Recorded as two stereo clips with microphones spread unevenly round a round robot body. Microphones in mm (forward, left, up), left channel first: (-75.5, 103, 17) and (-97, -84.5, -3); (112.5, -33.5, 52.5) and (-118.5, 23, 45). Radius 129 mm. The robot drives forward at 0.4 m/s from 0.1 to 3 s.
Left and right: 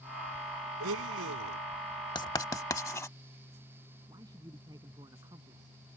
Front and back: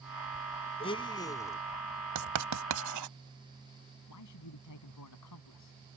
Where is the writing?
150° left; by 3.1 s 155° left.